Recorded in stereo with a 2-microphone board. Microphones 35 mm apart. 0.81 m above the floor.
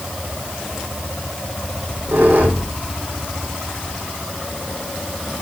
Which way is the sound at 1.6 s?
70° right (ahead or behind).